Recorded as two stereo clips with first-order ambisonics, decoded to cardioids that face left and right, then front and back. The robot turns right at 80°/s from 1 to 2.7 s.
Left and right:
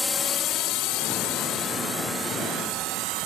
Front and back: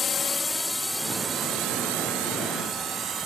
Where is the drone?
25° left; by 3.3 s 125° right.